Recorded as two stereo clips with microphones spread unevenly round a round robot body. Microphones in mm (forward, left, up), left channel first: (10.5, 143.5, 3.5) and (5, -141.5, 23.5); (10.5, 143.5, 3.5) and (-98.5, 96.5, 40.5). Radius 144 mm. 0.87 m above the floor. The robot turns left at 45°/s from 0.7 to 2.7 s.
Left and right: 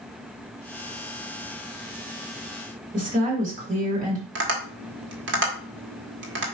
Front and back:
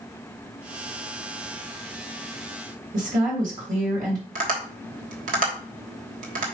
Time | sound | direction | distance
2.9 | a woman speaking | 155° right | 2.5 m
4.3 | tapping | 145° right | 1.5 m